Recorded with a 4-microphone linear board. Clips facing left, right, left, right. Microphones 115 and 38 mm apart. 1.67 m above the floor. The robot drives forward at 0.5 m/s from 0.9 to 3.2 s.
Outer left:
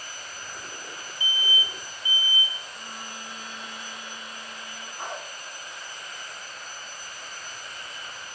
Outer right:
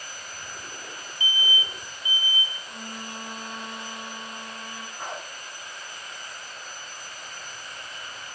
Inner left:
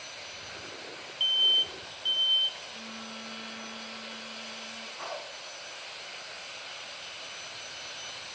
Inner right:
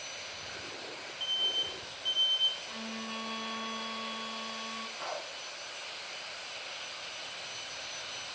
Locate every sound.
1.2 s an alarm: 45° left (ahead or behind), 0.6 m; by 2.6 s 20° left (ahead or behind), 1.1 m
2.7 s a violin: 60° right (ahead or behind), 1.8 m; by 4.9 s 55° right (ahead or behind), 2.0 m
5.0 s a dog barking: 15° left (ahead or behind), 5.5 m